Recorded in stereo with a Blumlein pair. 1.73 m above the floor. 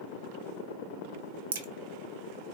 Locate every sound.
1.5 s a crack: 60° right, 0.8 m